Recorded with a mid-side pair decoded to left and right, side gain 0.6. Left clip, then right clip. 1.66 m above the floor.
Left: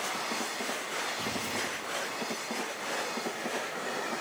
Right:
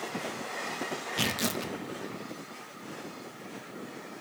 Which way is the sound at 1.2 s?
65° right.